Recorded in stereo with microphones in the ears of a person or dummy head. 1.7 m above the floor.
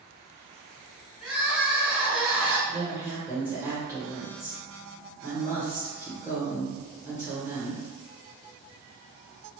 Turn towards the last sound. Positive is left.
turn(degrees=-15)  # may be behind; listen again after turning